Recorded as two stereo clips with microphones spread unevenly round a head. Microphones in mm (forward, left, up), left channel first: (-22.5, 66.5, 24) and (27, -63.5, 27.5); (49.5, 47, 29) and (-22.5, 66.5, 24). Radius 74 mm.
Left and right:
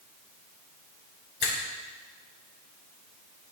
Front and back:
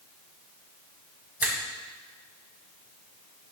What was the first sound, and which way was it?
A finger snap, 100° left.